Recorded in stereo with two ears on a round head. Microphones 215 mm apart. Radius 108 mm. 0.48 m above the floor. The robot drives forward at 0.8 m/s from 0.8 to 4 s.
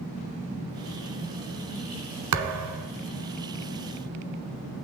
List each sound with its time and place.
2.3 s a thud: 80° right, 1.4 m; by 2.9 s 75° right (ahead or behind), 1.4 m